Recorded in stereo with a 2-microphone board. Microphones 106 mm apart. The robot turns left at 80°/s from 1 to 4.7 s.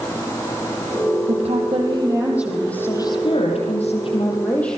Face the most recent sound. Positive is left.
turn(degrees=5)